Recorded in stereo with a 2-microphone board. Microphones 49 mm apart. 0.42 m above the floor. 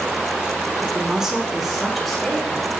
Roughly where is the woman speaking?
Centre.